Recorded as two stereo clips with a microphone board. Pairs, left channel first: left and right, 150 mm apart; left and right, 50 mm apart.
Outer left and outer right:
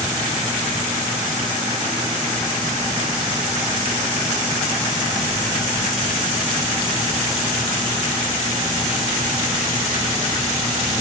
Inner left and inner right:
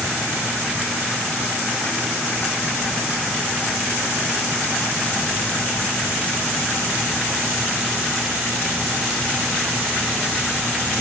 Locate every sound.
Only background noise.